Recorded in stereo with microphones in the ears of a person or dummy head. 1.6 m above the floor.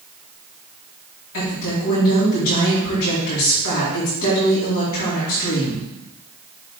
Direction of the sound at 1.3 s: 80° left.